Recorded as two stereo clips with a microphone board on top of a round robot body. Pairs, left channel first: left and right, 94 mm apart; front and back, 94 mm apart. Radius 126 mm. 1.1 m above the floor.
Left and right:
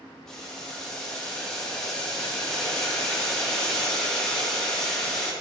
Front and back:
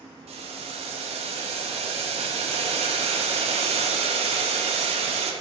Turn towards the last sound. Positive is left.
turn(degrees=175)